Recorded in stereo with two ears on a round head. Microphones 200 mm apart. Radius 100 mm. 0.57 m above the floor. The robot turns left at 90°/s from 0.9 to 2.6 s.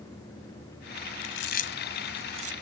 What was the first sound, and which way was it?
Chewing, 70° left (ahead or behind).